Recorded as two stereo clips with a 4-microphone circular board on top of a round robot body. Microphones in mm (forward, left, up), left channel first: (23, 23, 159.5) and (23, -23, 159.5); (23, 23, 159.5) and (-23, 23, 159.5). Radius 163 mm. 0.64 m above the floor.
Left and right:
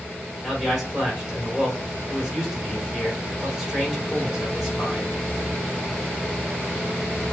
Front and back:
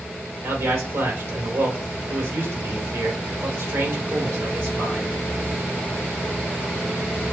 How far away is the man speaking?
About 2.5 m.